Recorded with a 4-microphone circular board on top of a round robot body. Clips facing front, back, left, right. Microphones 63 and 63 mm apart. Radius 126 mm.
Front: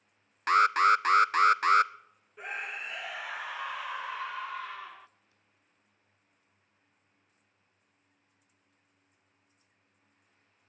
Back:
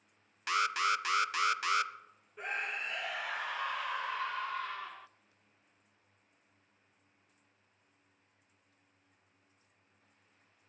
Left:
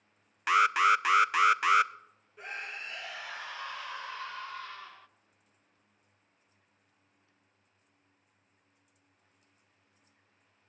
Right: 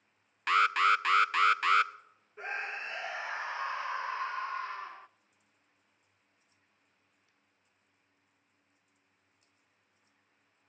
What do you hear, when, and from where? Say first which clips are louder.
0.5 s an alarm: front 9 dB, left 2 dB; 10° left, 0.6 m
2.4 s a scream: even, right 3 dB; 85° right, 0.6 m